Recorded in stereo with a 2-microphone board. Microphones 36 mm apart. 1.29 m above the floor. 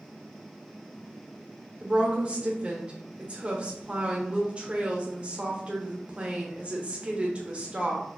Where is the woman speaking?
30° right (ahead or behind), 0.8 m.